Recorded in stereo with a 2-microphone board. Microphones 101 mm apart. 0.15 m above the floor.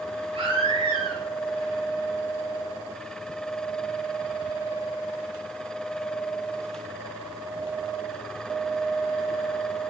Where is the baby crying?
60° right (ahead or behind), 8.5 m.